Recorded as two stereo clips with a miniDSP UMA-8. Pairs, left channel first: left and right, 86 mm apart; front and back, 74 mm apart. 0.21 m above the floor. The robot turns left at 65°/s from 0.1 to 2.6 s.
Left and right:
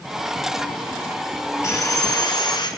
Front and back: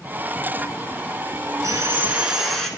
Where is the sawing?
145° left, 1.2 m; by 2.7 s 80° left, 1.2 m.